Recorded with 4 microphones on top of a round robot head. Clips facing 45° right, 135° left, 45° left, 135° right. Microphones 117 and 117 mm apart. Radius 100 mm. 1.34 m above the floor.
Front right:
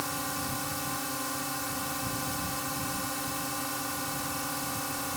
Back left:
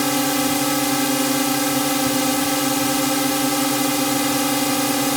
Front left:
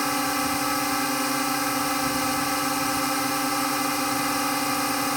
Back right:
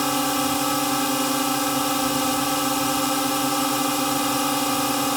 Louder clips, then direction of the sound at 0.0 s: Back left 15 dB, back right 3 dB; 145° left.